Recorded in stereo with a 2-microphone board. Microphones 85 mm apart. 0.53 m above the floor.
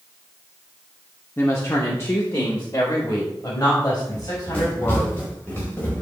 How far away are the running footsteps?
About 4.5 m.